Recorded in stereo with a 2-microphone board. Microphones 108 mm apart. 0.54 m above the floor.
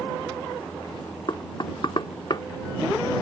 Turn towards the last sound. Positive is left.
turn(degrees=45)  # may be behind; listen again after turning